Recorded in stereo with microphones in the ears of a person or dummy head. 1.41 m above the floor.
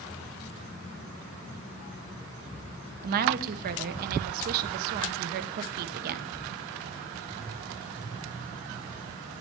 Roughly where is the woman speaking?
Right.